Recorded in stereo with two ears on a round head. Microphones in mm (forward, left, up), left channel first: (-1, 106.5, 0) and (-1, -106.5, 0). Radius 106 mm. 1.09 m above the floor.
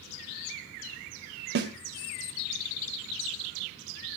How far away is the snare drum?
About 2 m.